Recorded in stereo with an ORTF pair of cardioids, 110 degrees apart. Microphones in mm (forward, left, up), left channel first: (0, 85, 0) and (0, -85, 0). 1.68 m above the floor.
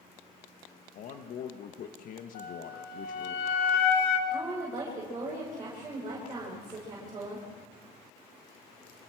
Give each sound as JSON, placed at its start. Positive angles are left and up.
{"t": 0.9, "sound": "a man speaking", "azimuth_deg": 60, "distance_m": 1.7}
{"t": 2.4, "sound": "a flute", "azimuth_deg": 65, "distance_m": 2.5}
{"t": 4.3, "sound": "a woman speaking", "azimuth_deg": -25, "distance_m": 7.5}